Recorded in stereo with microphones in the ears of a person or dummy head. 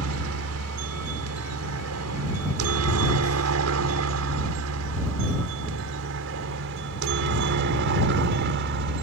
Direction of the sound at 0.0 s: 75° right (ahead or behind).